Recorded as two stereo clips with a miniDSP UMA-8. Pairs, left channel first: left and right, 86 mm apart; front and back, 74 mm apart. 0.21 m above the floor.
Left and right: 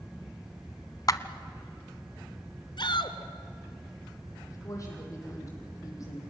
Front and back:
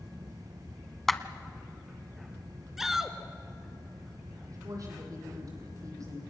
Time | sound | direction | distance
1.1 | a clap | 85° left | 1.0 m
2.8 | a shout | 95° left | 2 m
4.5 | a woman speaking | 140° left | 8 m